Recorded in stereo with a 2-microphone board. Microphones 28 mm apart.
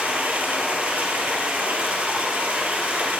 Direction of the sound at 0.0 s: 85° right.